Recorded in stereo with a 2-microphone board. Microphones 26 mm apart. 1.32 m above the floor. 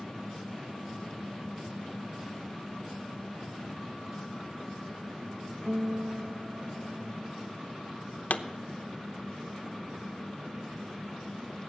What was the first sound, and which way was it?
A guitar, 75° right (ahead or behind).